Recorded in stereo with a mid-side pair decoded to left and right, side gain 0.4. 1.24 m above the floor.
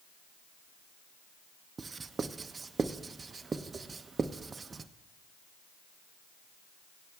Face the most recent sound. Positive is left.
turn(degrees=-40)